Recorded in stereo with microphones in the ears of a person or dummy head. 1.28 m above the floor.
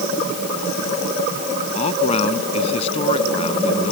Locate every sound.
1.8 s a man speaking: 30° left (ahead or behind)